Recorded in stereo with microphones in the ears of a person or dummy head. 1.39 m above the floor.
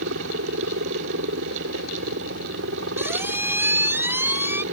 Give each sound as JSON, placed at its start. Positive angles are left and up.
{"t": 0.0, "sound": "a helicopter", "side_deg": -75}
{"t": 3.0, "sound": "a squeak", "side_deg": -10}